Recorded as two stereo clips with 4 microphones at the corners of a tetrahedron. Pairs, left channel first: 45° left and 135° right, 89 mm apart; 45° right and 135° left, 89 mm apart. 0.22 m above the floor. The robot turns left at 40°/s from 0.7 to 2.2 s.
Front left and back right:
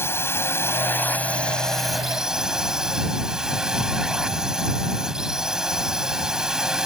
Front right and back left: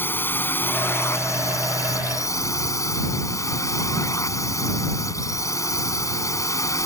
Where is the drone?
5° left; by 6.8 s 55° right.